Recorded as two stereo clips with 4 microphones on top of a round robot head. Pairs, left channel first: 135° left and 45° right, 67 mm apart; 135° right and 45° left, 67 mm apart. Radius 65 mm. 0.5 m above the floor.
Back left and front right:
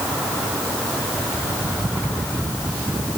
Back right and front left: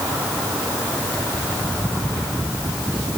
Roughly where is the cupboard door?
I don't hear a cupboard door.